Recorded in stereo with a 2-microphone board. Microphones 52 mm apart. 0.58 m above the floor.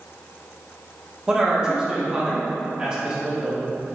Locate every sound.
1.3 s a man speaking: 15° right (ahead or behind), 1.4 m